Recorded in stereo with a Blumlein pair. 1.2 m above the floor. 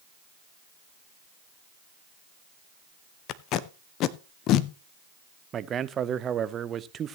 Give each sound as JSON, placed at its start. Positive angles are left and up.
{"t": 3.3, "sound": "tape being pulled", "azimuth_deg": 35, "distance_m": 0.6}
{"t": 5.5, "sound": "a man speaking", "azimuth_deg": -25, "distance_m": 0.6}